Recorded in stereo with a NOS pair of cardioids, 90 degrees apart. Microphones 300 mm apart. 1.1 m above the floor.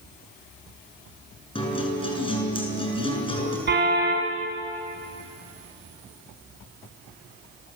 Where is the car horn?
35° right, 5.5 m.